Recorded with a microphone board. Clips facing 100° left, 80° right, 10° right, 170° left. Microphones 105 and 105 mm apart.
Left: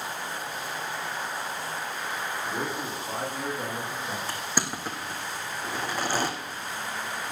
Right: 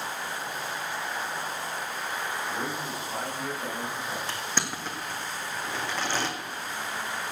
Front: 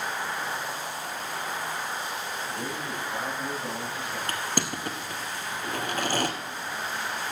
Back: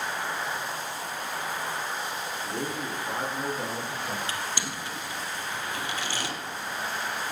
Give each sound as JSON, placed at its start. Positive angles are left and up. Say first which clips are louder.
{"t": 2.5, "sound": "a man speaking", "louder": "left 1 dB, back 1 dB", "azimuth_deg": 140, "distance_m": 7.5}
{"t": 4.3, "sound": "crushing", "louder": "left 1 dB, front 3 dB", "azimuth_deg": 25, "distance_m": 1.6}